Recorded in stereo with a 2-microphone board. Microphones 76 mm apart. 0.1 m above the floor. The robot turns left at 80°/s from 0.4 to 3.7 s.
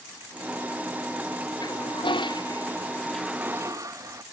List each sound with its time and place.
1.6 s a toilet flushing: 125° left; by 4.2 s 40° right